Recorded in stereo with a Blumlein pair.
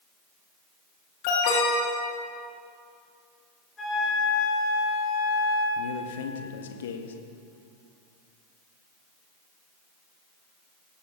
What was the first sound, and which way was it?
An alarm, 45° left.